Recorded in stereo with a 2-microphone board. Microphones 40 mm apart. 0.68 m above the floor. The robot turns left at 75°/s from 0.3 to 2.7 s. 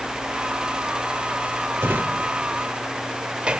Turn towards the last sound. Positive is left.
turn(degrees=-25)  # may be behind; listen again after turning